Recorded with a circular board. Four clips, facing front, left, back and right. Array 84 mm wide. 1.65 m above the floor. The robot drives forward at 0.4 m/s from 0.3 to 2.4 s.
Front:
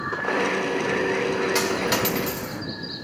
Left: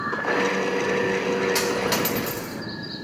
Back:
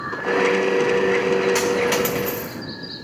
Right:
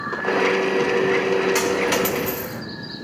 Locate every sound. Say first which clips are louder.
1.6 s a dropped coin: right 3 dB, back 4 dB; 135° right, 1.2 m; by 2.6 s 155° right, 1.3 m